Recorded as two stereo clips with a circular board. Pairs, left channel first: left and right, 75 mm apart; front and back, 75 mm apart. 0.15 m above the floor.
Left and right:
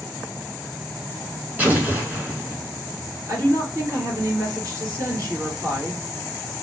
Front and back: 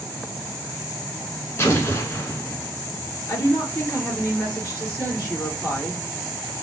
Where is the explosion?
35° right, 1.7 m.